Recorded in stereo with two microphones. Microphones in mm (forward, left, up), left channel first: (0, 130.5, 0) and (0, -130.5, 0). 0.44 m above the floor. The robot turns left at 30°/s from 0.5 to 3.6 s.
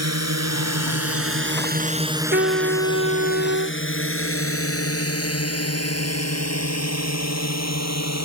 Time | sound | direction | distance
0.0 | a drone | 75° right (ahead or behind) | ?
2.3 | a trumpet | 40° right | ?